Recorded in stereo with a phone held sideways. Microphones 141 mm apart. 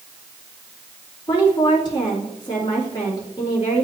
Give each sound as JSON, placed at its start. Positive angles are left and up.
{"t": 1.3, "sound": "a woman speaking", "side_deg": 30, "distance_m": 2.5}